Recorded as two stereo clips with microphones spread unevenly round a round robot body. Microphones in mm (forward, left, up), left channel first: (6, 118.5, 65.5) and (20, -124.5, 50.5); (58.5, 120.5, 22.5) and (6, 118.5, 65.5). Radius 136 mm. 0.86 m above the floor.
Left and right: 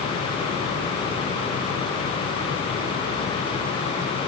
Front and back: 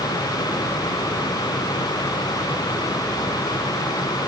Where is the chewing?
No chewing in this recording.